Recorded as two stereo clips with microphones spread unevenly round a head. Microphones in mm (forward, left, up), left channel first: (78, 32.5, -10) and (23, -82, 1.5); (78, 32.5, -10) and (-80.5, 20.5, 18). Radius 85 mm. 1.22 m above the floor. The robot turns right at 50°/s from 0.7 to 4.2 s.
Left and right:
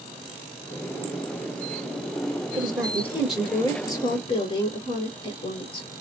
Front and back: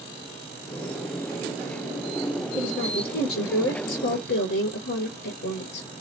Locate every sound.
2.5 s a woman speaking: 60° right, 1.4 m; by 5.9 s 20° left, 1.4 m